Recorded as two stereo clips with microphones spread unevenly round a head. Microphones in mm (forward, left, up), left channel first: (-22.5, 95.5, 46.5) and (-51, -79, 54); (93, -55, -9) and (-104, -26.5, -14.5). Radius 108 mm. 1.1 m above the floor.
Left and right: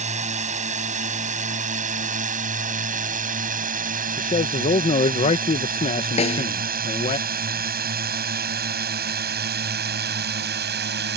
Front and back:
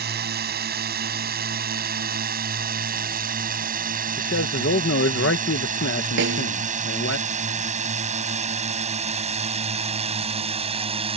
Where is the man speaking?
30° left.